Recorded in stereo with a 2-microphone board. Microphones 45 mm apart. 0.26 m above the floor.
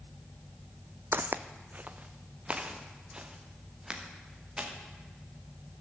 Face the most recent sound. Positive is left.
turn(degrees=-20)  # may be behind; listen again after turning